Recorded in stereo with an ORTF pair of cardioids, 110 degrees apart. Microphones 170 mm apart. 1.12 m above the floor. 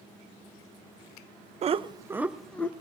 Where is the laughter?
40° right, 0.6 m; by 2.7 s 10° left, 0.7 m.